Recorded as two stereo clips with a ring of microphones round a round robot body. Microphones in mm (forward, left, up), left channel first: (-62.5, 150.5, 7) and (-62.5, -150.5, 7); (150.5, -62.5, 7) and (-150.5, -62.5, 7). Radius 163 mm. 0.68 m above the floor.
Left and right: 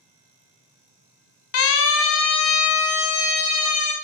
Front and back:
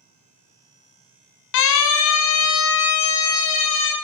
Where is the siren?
40° left, 2.5 m; by 3.9 s 45° left, 4 m.